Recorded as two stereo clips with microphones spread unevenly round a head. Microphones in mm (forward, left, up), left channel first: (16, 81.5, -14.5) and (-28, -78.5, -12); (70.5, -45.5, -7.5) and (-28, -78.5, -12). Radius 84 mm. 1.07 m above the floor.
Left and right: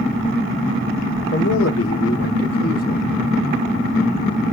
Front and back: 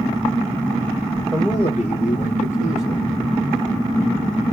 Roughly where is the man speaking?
Left.